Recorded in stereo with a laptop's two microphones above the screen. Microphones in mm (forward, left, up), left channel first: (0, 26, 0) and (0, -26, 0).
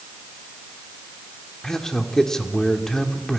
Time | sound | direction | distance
1.6 | a man speaking | 10° left (ahead or behind) | 2.5 m